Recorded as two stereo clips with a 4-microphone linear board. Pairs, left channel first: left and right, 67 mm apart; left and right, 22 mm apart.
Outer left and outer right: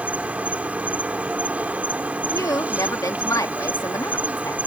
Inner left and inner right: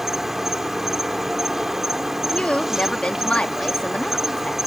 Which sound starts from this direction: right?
An insect, at 0.0 s.